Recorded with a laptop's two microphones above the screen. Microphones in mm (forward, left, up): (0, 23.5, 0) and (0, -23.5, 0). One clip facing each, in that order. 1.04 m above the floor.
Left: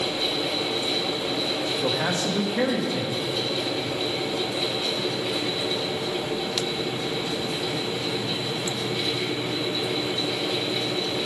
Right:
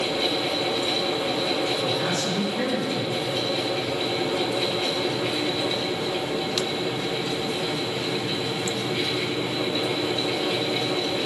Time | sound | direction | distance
0.0 | a fan | 60° right (ahead or behind) | 2 m
1.8 | a man speaking | 40° left (ahead or behind) | 1.1 m